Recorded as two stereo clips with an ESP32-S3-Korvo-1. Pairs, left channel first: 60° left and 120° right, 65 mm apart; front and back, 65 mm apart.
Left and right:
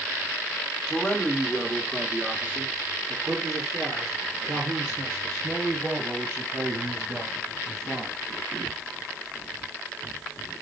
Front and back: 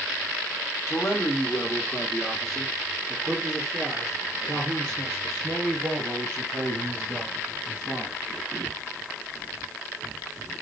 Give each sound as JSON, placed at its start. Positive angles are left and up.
{"t": 0.9, "sound": "a man speaking", "azimuth_deg": -15, "distance_m": 1.2}